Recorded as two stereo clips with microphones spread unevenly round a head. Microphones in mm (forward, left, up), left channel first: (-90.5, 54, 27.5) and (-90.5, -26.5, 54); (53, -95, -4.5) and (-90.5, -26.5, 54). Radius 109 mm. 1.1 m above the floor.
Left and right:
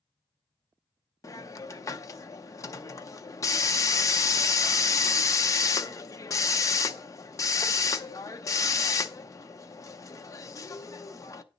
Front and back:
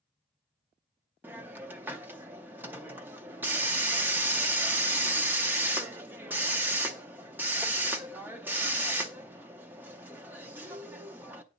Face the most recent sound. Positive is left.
turn(degrees=140)